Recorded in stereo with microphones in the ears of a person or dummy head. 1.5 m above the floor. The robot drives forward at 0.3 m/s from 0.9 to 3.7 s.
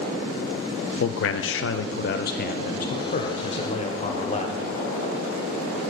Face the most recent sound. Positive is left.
turn(degrees=30)  # may be behind; listen again after turning